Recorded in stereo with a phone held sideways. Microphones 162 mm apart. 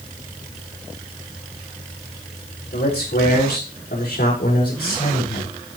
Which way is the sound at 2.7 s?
85° left.